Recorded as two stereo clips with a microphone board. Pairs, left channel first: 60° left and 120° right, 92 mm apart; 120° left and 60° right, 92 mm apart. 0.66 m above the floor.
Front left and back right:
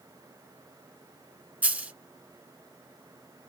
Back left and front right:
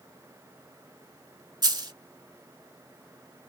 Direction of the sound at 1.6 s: 55° right.